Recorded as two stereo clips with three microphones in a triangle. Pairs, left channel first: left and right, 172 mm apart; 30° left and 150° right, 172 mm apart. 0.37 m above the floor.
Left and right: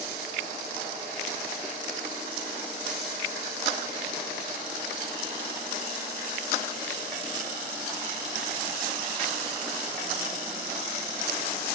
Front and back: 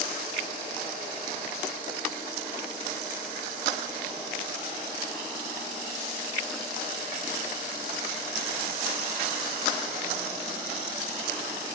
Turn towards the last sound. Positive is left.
No sound to turn to.